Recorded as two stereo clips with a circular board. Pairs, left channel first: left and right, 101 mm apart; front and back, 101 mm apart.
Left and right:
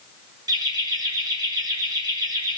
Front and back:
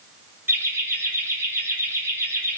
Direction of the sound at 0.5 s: 115° right.